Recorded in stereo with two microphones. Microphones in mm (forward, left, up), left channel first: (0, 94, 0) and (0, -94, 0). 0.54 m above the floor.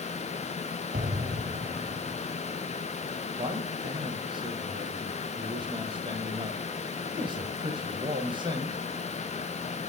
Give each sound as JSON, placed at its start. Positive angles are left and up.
{"t": 0.9, "sound": "an explosion", "side_deg": -50, "distance_m": 1.2}
{"t": 3.4, "sound": "a man speaking", "side_deg": -25, "distance_m": 2.5}